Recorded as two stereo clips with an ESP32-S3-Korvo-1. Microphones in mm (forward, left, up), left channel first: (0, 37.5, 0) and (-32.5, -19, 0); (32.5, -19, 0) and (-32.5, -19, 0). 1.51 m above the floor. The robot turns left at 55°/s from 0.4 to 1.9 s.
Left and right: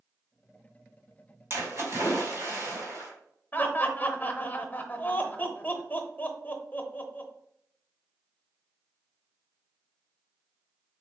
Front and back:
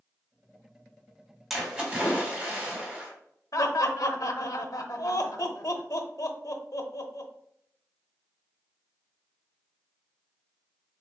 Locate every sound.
1.5 s a splash: 95° right, 1.9 m; by 3.1 s 120° right, 1.9 m
3.5 s laughter: straight ahead, 0.7 m